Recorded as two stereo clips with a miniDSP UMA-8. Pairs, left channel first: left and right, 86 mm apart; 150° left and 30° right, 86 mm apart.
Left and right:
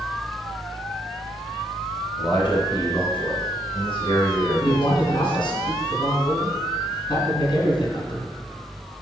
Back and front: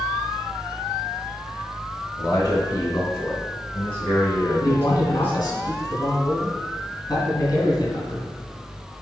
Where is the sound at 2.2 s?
100° left, 2.5 m; by 5.6 s 80° left, 4.5 m.